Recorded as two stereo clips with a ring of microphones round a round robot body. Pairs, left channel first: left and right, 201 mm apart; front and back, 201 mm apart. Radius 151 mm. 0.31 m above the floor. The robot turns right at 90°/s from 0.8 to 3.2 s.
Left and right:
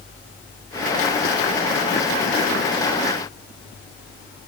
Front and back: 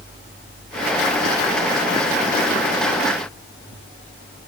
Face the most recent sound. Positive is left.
No sound to turn to.